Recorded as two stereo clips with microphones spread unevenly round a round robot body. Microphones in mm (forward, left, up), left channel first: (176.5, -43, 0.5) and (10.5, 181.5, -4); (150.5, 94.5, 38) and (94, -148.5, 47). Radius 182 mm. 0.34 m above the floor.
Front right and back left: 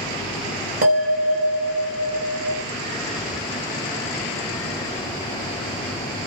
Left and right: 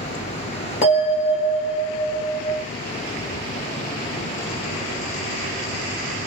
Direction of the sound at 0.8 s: 120° left.